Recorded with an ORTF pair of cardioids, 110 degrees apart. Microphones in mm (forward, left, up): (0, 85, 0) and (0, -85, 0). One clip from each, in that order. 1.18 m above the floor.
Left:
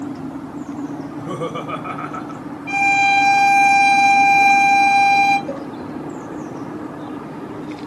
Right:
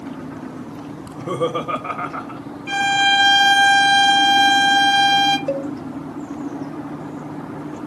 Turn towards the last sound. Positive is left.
turn(degrees=-60)